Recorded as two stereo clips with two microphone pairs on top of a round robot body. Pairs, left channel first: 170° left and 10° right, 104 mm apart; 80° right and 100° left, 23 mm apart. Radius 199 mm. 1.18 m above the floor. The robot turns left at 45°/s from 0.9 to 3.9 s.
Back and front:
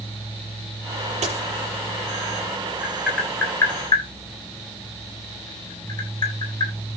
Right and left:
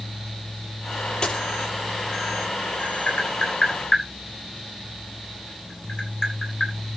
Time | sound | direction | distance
1.2 | a dropped coin | 30° right | 8 m
2.8 | tapping | 95° right | 8 m